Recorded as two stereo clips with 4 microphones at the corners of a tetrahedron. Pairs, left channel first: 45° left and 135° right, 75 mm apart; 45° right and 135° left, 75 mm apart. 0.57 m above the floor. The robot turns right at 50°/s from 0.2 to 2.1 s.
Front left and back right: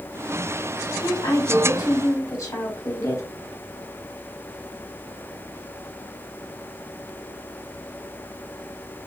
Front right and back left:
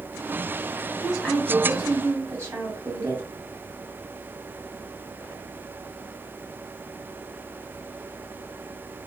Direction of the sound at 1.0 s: 35° left.